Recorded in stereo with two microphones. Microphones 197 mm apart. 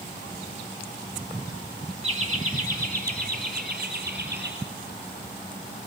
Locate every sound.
2.0 s laughter: 35° right (ahead or behind), 1.9 m; by 4.5 s 60° right (ahead or behind), 4 m